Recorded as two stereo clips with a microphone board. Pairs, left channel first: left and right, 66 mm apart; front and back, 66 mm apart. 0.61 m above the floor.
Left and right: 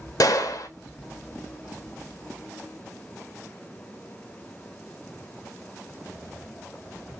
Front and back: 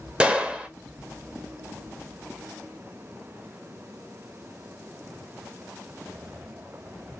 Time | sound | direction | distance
0.2 | a gunshot | 110° left | 0.6 m